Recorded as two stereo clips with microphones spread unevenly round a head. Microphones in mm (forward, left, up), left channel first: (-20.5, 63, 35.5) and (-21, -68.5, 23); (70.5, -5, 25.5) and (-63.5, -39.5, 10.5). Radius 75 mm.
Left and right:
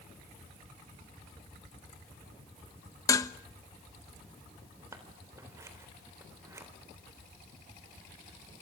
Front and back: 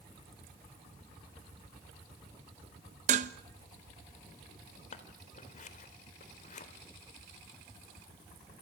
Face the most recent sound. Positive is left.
turn(degrees=-15)